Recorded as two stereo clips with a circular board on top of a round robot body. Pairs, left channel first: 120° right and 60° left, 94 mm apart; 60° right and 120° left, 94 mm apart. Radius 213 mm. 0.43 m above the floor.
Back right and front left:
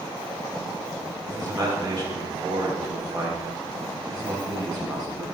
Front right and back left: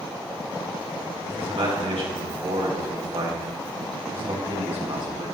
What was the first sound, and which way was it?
A man speaking, 105° left.